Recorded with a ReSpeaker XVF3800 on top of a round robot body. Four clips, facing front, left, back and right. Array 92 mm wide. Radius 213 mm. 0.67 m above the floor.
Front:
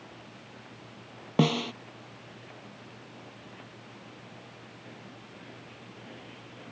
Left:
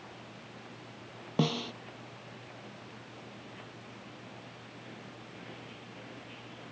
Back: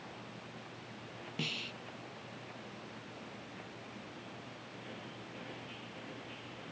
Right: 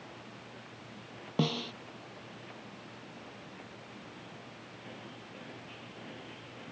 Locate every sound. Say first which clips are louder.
1.4 s a snare drum: left 1 dB, front 17 dB; 5° left